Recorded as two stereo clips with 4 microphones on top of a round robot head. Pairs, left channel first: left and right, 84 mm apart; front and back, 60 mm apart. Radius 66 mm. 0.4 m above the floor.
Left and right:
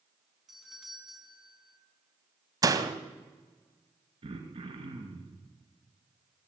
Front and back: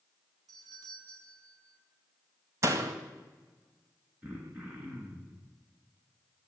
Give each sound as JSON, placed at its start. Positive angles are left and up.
{"t": 0.5, "sound": "a doorbell", "azimuth_deg": -175, "distance_m": 5.5}
{"t": 2.6, "sound": "a door slam", "azimuth_deg": -135, "distance_m": 2.0}
{"t": 4.2, "sound": "throat clearing", "azimuth_deg": -110, "distance_m": 4.5}